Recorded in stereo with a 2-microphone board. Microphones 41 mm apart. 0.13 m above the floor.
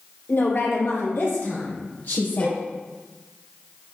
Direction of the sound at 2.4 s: 25° left (ahead or behind).